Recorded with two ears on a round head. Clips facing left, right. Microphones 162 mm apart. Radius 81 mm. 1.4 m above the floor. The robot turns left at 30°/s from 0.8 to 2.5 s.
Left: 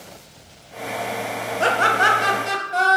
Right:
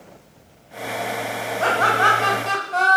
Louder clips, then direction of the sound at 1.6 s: Even; 35° left (ahead or behind).